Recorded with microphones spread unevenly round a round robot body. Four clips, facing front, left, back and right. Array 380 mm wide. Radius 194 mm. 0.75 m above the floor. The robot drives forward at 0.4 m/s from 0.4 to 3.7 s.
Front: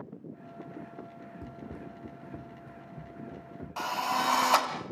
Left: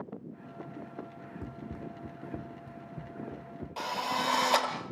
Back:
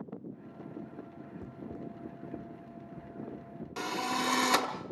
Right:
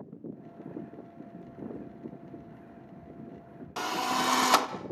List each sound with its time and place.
1.4 s running footsteps: 80° left, 1.6 m; by 3.7 s 75° left, 4 m
3.8 s a drill: 135° right, 0.9 m